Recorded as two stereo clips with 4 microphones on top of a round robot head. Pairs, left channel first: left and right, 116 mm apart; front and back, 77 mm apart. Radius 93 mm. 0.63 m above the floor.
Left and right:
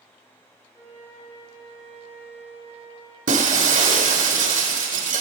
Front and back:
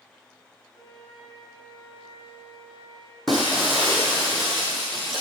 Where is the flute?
20° left, 4 m.